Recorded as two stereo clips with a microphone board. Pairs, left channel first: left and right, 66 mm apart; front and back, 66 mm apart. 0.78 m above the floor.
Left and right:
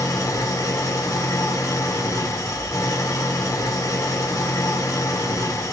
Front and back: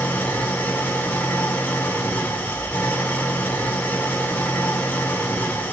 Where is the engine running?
65° left, 1.7 m.